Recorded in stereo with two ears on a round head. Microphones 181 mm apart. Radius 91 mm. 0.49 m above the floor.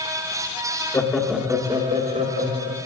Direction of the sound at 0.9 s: 15° left (ahead or behind).